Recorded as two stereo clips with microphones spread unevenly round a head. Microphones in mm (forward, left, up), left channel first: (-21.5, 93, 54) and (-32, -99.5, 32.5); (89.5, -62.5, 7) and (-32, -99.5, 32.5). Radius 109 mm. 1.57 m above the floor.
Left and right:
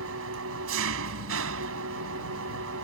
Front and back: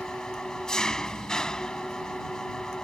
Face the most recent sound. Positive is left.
turn(degrees=-70)